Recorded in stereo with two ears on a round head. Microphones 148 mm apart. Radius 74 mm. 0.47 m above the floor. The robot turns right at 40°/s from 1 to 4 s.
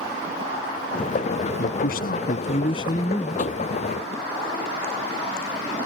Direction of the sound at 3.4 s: 50° left (ahead or behind).